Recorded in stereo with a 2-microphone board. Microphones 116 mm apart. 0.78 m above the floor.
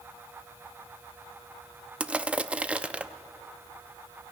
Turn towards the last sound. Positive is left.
turn(degrees=-10)  # may be behind; listen again after turning